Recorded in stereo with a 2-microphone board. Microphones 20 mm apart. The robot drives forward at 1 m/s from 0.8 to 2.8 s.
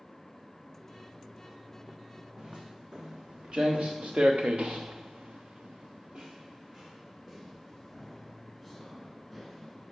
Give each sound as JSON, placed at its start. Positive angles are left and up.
{"t": 2.4, "sound": "footsteps", "side_deg": -45, "distance_m": 1.6}